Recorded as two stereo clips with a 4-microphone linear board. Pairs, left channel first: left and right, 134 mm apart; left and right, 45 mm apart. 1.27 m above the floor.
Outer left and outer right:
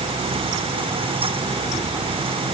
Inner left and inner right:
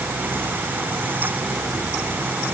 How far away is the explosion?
I don't hear an explosion.